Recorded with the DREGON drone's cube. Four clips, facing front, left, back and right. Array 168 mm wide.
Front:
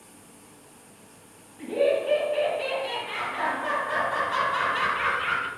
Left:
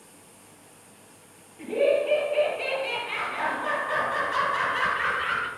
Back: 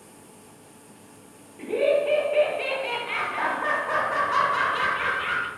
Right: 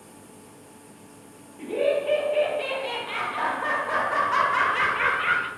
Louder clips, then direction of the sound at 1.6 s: Left 1 dB, back 2 dB; 175° right.